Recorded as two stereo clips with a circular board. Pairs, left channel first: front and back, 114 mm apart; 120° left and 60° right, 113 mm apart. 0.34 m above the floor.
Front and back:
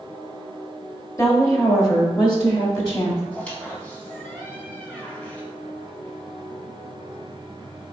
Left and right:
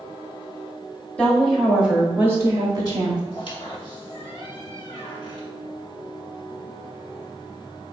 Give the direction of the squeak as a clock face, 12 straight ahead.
9 o'clock.